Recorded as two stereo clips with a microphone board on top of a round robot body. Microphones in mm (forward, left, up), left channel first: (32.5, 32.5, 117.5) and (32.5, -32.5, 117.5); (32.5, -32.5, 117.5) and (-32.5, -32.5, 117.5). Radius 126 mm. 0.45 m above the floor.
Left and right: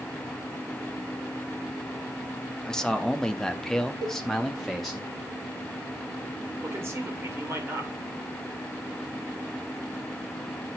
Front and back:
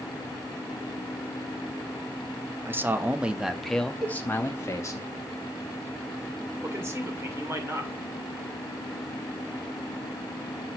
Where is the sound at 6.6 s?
135° right, 2.5 m.